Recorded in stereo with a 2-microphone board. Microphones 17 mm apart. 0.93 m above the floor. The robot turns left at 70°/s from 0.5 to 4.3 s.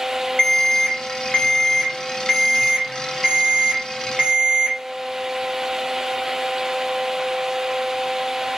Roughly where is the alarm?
Behind left.